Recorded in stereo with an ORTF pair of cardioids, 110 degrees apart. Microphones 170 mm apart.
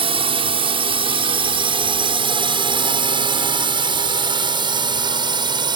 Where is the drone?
35° right; by 5.8 s 25° right.